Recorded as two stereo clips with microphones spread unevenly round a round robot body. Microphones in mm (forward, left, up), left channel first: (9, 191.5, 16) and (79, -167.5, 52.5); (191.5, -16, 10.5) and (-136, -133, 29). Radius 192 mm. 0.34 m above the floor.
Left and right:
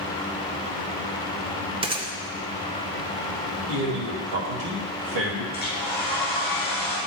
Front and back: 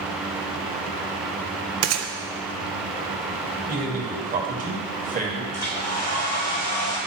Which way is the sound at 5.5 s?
35° left.